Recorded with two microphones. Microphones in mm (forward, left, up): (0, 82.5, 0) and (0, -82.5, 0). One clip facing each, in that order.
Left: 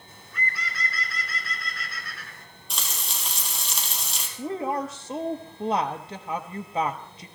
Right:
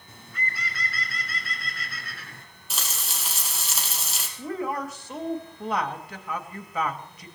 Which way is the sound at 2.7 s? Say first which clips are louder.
Even; 5° right (ahead or behind).